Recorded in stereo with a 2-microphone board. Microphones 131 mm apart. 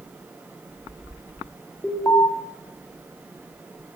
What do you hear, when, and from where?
1.8 s an alarm: 15° left (ahead or behind), 1.2 m